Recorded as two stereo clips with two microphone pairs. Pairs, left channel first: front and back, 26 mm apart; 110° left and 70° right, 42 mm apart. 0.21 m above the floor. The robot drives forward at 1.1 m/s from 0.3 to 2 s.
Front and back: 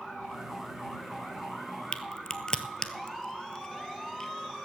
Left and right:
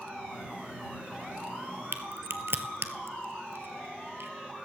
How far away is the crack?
About 0.8 m.